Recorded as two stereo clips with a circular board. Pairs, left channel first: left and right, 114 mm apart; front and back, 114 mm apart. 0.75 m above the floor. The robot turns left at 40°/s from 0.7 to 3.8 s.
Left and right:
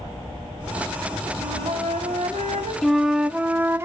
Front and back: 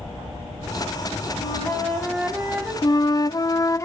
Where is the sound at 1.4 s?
55° right, 4.5 m; by 2.7 s 110° right, 4.5 m.